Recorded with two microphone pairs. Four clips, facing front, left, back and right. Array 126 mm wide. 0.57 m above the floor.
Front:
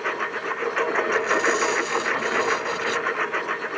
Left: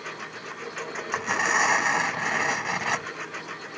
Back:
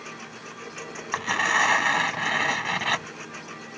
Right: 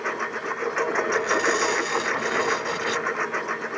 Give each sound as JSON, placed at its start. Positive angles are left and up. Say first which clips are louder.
{"t": 0.0, "sound": "a lawn mower", "louder": "right 9 dB, front 13 dB", "azimuth_deg": -35}
{"t": 1.1, "sound": "tearing paper", "louder": "left 1 dB, back 1 dB", "azimuth_deg": 140}